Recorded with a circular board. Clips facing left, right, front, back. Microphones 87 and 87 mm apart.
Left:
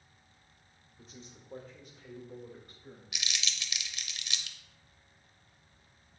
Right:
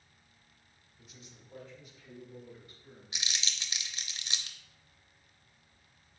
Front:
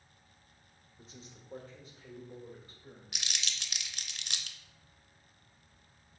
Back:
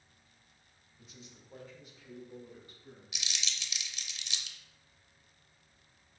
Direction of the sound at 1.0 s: 45° left.